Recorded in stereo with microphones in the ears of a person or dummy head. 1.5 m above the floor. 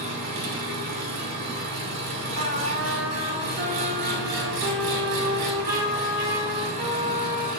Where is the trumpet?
45° right (ahead or behind), 2.5 m.